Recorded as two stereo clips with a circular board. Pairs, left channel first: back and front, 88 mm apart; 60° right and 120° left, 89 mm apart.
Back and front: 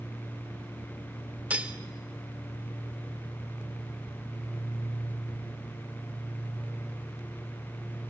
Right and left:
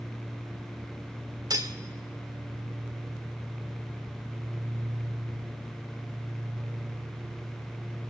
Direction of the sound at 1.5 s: 75° left.